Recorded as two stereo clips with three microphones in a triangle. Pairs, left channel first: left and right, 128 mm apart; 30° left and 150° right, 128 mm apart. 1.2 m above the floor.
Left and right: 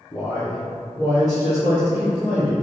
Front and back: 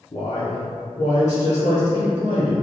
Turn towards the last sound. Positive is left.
turn(degrees=-10)